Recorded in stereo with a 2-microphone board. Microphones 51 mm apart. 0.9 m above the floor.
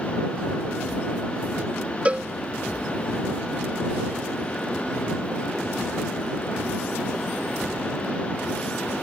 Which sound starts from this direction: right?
A cowbell, at 2.0 s.